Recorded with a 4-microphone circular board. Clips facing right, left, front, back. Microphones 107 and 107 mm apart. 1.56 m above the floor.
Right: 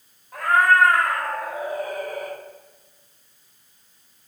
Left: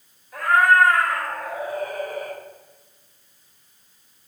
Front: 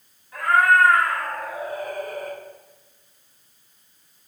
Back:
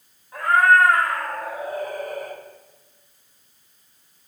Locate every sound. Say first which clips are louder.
0.3 s a cat meowing: left 1 dB, back 1 dB; 125° right, 3 m; by 2.4 s 160° right, 3 m